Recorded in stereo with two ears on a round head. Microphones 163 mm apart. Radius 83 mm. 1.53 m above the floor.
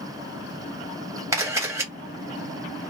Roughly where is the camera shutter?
Centre.